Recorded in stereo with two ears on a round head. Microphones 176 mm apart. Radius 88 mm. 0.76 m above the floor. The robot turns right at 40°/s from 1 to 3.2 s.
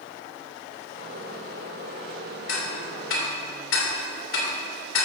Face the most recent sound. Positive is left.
turn(degrees=75)  # may be behind; listen again after turning